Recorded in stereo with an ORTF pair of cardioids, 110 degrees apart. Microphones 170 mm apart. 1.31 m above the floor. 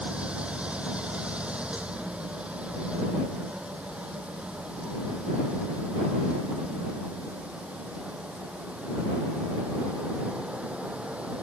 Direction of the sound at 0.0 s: 5° right.